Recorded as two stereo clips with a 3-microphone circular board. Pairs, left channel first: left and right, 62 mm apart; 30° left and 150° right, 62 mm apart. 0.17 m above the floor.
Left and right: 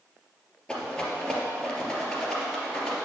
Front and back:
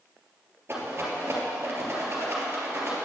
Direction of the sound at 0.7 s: 160° left.